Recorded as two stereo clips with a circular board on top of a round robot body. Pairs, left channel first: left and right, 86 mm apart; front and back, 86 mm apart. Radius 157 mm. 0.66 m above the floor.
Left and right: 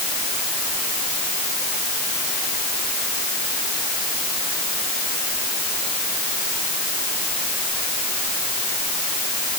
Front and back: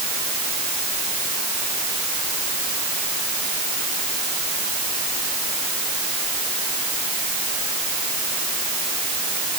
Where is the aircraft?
I don't hear an aircraft.